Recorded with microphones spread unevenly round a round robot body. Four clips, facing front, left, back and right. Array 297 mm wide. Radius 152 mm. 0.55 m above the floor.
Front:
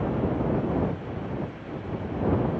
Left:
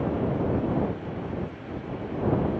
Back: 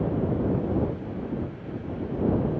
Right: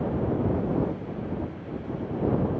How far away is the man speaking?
I don't hear a man speaking.